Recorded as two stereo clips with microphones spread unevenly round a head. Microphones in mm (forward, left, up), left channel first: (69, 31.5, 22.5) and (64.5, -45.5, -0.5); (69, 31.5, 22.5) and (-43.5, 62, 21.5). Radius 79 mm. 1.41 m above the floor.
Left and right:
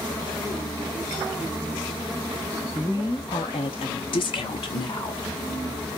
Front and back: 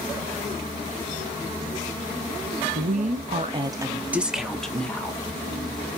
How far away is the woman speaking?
About 0.9 m.